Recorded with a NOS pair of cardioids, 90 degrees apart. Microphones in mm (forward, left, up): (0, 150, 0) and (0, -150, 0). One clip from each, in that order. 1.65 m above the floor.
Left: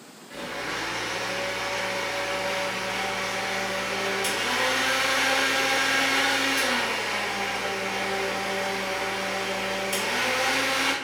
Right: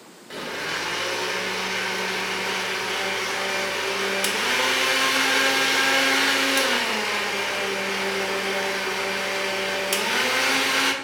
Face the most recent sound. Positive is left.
turn(degrees=-50)